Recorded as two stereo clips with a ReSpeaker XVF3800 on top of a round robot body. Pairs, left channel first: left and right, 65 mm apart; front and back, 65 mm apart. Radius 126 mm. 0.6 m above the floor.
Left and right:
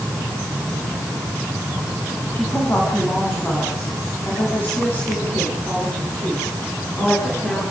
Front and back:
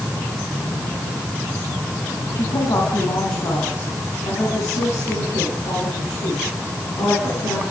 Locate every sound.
2.4 s a woman speaking: 30° left, 6 m